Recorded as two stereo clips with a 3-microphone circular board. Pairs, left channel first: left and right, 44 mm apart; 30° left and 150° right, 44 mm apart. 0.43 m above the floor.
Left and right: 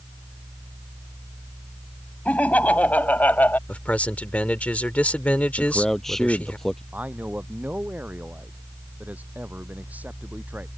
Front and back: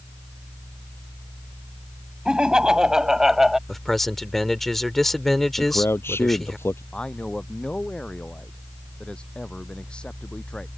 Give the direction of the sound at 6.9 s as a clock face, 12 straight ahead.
1 o'clock.